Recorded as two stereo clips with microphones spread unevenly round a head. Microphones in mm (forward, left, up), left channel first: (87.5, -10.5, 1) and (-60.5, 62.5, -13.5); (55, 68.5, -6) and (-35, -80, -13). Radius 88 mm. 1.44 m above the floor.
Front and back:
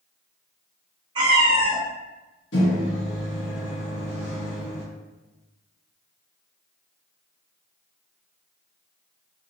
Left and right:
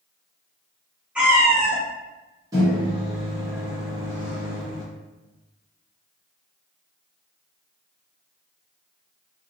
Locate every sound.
1.1 s a cat meowing: 165° left, 0.8 m
2.5 s a microwave: 50° right, 1.2 m